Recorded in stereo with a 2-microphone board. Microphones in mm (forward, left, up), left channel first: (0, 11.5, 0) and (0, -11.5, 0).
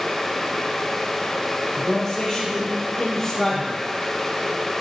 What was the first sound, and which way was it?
A man speaking, 5° left (ahead or behind).